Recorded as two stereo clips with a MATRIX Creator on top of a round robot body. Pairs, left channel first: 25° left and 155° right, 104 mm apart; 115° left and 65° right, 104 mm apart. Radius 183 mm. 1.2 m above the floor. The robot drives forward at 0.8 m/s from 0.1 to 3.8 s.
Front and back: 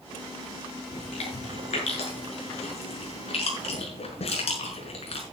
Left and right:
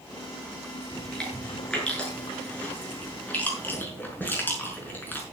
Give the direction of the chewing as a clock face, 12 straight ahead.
11 o'clock.